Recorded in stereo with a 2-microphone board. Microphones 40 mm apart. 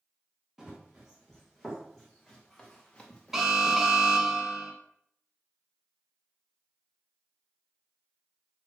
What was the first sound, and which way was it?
Running footsteps, 5° right (ahead or behind).